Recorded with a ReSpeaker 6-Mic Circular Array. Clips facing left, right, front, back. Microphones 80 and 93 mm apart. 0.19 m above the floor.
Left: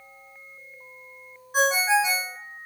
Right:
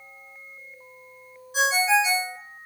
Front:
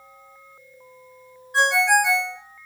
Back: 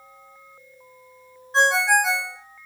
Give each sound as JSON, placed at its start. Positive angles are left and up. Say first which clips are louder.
{"t": 1.5, "sound": "a ringtone", "louder": "even, even", "azimuth_deg": 120, "distance_m": 1.7}